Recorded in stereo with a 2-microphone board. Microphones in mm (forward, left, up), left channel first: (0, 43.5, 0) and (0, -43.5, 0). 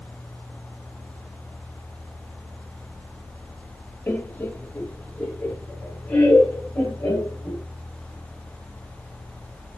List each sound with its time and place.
4.1 s laughter: 25° left (ahead or behind), 0.9 m; by 7.6 s 15° left (ahead or behind), 3.5 m